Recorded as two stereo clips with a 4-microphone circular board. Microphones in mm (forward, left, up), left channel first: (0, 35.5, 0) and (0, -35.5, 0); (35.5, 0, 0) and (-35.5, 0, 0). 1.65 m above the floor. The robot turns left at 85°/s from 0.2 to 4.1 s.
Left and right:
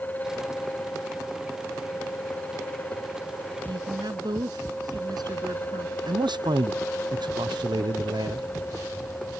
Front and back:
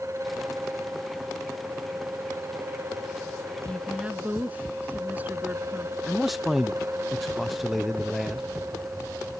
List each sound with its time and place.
3.7 s a woman speaking: 75° right; by 6.0 s 110° right
6.1 s a man speaking: 90° right